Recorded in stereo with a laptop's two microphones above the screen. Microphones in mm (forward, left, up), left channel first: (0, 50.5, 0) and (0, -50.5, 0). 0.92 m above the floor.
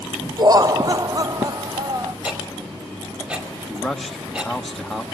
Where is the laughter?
40° right (ahead or behind), 0.6 m.